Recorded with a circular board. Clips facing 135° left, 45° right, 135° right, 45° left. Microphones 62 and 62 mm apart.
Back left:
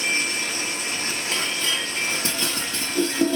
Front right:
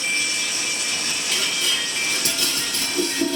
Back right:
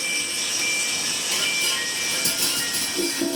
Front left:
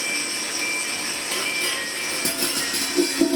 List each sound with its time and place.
0.0 s running water: 85° left, 0.9 m
1.3 s dishes clattering: 80° left, 1.4 m